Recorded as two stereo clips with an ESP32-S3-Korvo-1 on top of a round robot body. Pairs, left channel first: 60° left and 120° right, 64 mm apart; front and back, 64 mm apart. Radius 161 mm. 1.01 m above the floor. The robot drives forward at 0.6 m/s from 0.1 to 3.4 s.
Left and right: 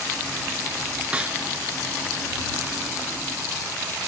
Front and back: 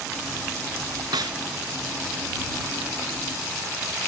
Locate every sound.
1.1 s a snare drum: 165° left; by 1.4 s 170° left